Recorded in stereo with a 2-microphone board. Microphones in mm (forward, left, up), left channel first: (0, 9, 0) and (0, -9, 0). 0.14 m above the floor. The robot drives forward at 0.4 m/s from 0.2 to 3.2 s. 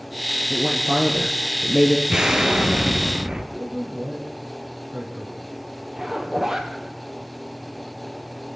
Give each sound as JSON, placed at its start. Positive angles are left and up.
{"t": 0.5, "sound": "a woman speaking", "side_deg": -35, "distance_m": 3.0}
{"t": 2.1, "sound": "an explosion", "side_deg": -45, "distance_m": 2.5}
{"t": 3.5, "sound": "a man speaking", "side_deg": -45, "distance_m": 4.0}
{"t": 6.0, "sound": "a zipper", "side_deg": -30, "distance_m": 2.5}